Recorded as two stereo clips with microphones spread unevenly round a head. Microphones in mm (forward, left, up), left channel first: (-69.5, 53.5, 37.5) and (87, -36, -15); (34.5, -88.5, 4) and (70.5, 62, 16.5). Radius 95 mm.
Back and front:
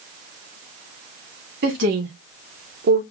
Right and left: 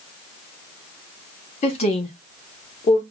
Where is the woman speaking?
55° right, 2.5 m; by 3.0 s 60° right, 0.9 m.